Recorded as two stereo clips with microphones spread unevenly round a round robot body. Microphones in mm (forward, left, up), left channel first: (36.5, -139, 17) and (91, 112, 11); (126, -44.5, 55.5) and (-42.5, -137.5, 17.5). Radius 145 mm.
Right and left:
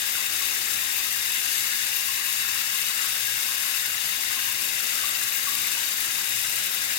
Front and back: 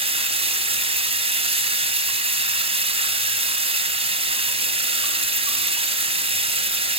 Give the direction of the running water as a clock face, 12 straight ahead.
3 o'clock.